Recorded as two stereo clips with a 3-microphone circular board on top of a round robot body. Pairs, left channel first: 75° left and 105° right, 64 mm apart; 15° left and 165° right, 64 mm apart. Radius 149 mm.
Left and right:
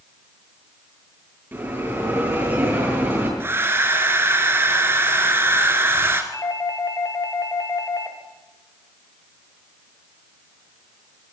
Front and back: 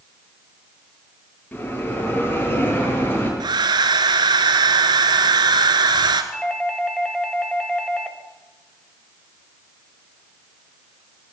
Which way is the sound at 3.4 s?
160° right.